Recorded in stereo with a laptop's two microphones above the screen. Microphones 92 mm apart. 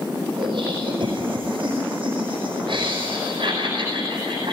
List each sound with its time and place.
0.4 s laughter: 65° right (ahead or behind), 5 m